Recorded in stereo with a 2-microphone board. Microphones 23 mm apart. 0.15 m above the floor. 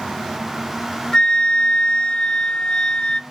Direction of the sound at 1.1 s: 40° left (ahead or behind).